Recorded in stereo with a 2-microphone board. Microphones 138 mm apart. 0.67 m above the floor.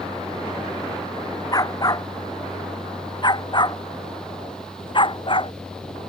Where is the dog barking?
30° left (ahead or behind); by 5.5 s 40° left (ahead or behind).